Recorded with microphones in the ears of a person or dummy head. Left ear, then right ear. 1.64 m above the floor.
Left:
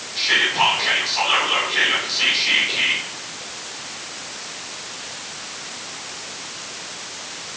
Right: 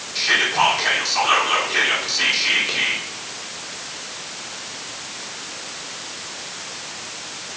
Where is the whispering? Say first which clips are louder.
Even; 55° right (ahead or behind), 2.5 m.